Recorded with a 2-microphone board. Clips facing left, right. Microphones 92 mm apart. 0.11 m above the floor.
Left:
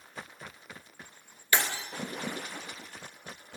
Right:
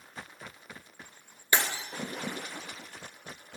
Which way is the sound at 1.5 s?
20° right (ahead or behind).